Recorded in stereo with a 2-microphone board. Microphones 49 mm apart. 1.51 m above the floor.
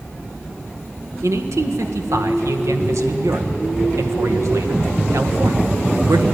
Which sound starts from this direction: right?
A man speaking, at 1.2 s.